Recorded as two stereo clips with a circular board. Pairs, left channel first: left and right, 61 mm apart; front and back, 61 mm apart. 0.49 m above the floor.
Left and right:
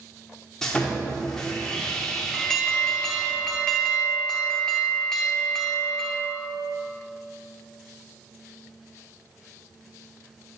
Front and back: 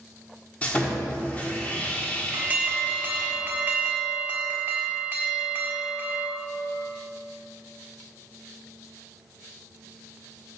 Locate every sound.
0.6 s sawing: 25° left, 1.4 m
2.3 s an alarm: 165° left, 1.2 m